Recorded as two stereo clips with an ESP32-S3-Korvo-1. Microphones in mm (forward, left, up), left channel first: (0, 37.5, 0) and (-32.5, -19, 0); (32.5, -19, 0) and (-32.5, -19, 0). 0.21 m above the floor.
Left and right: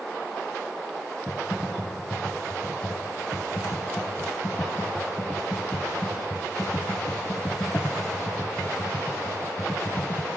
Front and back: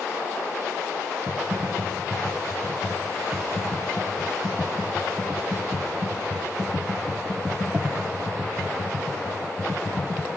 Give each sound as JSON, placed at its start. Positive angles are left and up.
{"t": 1.3, "sound": "typing on a keyboard", "azimuth_deg": 110, "distance_m": 0.9}